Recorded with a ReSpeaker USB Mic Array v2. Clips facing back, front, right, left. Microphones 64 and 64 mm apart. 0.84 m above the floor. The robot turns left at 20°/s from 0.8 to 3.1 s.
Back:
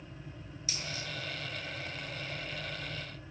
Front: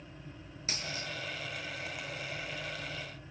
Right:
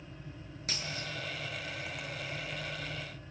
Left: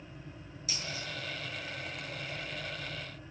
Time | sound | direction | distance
0.7 | a dropped coin | 50° right | 6.5 m